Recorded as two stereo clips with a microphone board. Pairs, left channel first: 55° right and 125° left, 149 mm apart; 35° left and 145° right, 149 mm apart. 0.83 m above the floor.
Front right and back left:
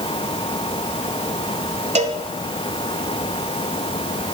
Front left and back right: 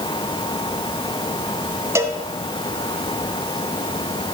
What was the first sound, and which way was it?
A cowbell, 145° left.